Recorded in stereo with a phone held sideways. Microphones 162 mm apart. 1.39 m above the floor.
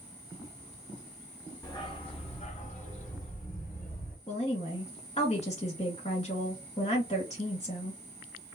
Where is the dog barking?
25° left (ahead or behind), 1.3 m; by 4.2 s 60° left (ahead or behind), 2 m.